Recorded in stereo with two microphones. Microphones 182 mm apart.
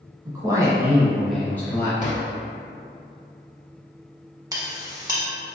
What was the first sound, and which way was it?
A man speaking, 25° right (ahead or behind).